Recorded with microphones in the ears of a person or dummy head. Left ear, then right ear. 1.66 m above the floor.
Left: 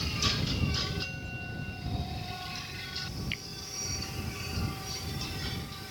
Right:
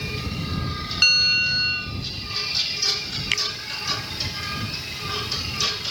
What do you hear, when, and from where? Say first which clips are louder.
1.0 s a bell: right 22 dB; 70° right (ahead or behind)
3.3 s a finger snap: right 15 dB; 55° right (ahead or behind)